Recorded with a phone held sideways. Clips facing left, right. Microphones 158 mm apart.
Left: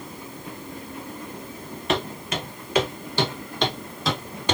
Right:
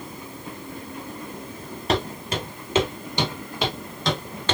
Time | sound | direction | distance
1.9 | footsteps | 35° right (ahead or behind) | 1.9 m